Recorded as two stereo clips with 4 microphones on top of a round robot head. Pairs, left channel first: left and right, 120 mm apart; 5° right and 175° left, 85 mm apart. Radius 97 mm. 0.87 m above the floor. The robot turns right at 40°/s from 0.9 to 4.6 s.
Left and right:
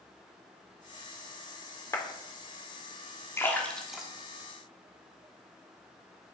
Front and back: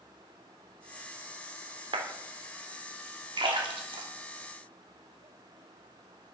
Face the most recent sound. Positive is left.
turn(degrees=-150)